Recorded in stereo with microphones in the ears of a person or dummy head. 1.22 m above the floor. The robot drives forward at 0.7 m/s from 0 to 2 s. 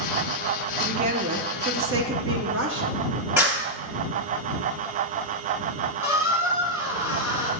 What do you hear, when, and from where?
0.8 s a woman speaking: 40° right (ahead or behind), 1.1 m; by 3.0 s 60° right (ahead or behind), 0.8 m
3.4 s a clap: 10° right (ahead or behind), 1.5 m
6.0 s a squeak: 15° right (ahead or behind), 1.3 m